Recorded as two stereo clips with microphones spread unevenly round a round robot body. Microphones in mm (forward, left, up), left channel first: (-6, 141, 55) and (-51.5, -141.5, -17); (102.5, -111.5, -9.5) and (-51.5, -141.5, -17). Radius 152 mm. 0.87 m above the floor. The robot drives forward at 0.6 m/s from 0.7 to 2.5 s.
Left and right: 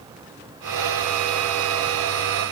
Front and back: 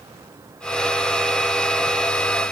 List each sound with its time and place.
Only background noise.